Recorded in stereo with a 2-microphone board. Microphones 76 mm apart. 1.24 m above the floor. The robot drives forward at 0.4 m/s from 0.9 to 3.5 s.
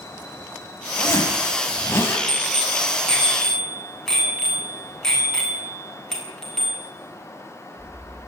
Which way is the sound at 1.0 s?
35° left (ahead or behind).